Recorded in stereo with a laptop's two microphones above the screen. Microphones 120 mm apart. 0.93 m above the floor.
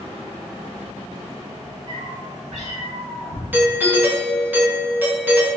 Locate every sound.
1.9 s a cat meowing: 75° right (ahead or behind), 1.4 m; by 3.4 s 55° right (ahead or behind), 0.7 m
3.5 s a doorbell: 15° right (ahead or behind), 0.7 m